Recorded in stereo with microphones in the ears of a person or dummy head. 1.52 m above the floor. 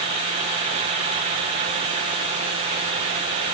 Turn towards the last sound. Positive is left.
No sound to turn to.